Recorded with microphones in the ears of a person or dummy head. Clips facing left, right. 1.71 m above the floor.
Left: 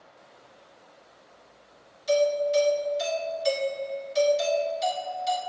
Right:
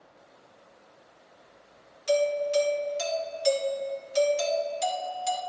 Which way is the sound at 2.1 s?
70° right (ahead or behind).